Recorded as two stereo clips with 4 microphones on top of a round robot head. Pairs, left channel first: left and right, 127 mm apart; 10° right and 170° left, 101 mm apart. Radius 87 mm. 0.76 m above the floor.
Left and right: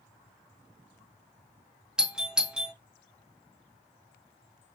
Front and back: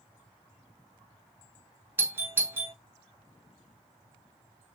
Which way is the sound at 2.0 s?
165° right.